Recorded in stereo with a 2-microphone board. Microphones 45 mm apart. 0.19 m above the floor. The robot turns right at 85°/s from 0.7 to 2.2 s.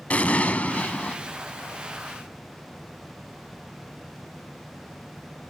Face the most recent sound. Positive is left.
turn(degrees=-155)